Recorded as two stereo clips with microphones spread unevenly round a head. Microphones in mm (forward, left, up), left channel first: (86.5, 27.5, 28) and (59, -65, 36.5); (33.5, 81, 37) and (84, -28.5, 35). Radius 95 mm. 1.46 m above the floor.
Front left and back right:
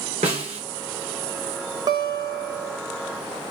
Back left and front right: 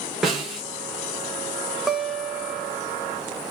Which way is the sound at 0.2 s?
155° right.